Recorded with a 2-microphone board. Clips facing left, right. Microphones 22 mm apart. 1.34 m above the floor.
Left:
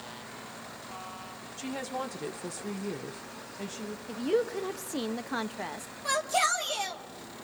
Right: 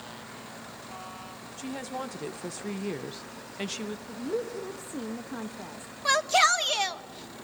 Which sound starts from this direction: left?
A woman speaking, at 4.1 s.